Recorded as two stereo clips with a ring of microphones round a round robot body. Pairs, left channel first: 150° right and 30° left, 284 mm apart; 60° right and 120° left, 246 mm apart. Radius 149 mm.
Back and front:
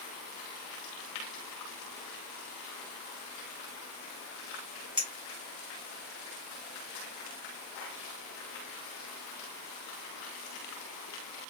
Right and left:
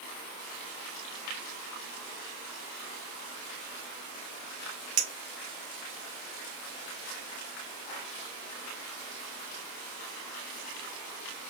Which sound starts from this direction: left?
A clink, at 5.0 s.